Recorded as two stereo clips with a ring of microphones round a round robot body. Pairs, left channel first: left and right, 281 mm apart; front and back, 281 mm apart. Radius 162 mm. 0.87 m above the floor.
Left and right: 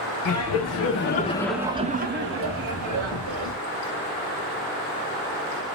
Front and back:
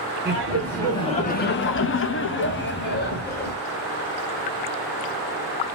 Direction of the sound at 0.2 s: 95° left.